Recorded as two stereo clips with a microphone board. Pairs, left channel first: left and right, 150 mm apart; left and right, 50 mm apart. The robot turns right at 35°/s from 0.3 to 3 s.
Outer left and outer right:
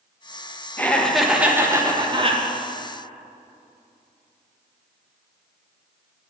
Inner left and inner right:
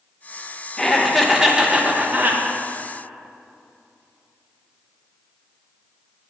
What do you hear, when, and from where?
0.8 s laughter: 165° left, 1.1 m; by 2.4 s 135° right, 1.1 m